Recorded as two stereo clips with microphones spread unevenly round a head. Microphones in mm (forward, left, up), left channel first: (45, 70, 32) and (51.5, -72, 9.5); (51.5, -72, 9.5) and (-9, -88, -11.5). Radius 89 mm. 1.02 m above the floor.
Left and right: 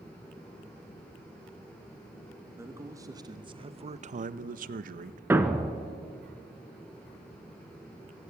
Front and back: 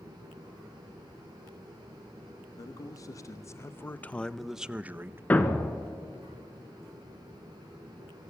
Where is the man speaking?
15° right, 1.5 m; by 5.2 s 120° right, 1.0 m.